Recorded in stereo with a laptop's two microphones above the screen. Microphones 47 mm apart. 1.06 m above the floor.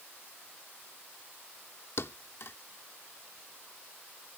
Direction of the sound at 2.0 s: 65° left (ahead or behind).